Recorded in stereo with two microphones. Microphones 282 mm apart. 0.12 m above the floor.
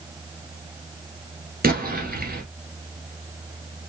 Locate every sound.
1.6 s an explosion: 35° right (ahead or behind), 1.4 m